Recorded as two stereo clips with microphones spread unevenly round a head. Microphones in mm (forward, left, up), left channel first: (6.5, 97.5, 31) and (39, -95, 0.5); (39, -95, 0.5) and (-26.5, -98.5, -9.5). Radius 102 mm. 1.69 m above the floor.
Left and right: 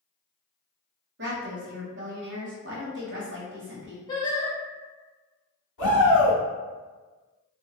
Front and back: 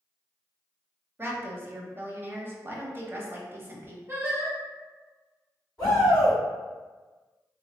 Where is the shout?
95° left, 1.9 m.